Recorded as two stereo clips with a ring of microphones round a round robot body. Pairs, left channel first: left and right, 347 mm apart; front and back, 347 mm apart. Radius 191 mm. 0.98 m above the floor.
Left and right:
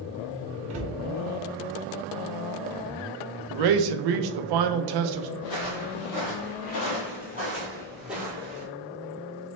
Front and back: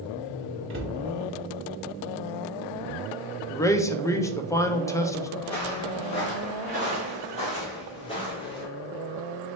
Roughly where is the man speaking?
Right.